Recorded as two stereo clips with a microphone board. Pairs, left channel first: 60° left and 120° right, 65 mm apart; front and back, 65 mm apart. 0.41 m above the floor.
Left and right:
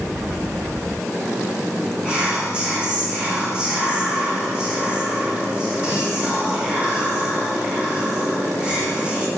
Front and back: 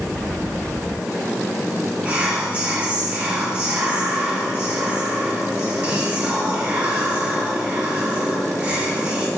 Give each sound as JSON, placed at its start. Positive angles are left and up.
{"t": 2.0, "sound": "whispering", "azimuth_deg": -160, "distance_m": 0.8}